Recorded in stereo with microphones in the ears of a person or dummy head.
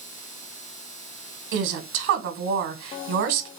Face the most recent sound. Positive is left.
turn(degrees=-55)  # may be behind; listen again after turning